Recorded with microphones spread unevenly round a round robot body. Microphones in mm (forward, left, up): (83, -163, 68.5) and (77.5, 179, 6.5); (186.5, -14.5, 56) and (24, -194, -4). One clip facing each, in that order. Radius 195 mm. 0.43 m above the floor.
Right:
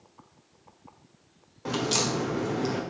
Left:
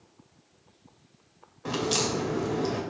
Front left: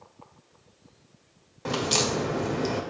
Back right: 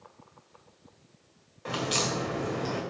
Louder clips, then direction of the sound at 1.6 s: Even, front left 4 dB; 10° left.